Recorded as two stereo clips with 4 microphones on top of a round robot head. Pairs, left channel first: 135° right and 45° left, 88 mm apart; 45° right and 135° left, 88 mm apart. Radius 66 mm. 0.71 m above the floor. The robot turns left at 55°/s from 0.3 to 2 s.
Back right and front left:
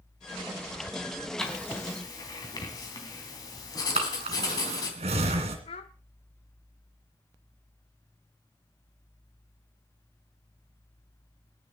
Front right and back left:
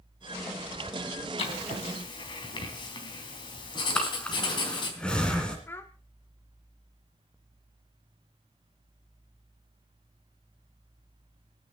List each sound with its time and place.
1.4 s writing: 50° right, 3.5 m; by 4.9 s 85° right, 3.5 m
3.9 s breathing: 35° left, 2.5 m
5.7 s a child speaking: 115° right, 0.7 m